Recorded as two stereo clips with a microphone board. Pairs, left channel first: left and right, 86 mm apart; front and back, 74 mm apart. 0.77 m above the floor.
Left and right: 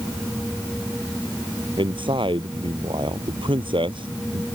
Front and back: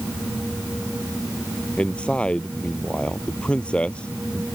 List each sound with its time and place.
1.8 s a man speaking: 75° right